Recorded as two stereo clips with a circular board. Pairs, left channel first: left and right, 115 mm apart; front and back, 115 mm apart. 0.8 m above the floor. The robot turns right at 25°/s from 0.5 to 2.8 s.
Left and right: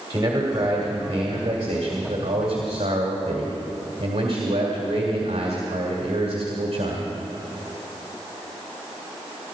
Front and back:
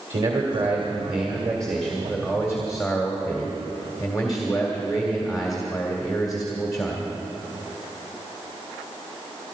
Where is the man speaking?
150° right, 2 m; by 7.1 s 90° right, 2 m.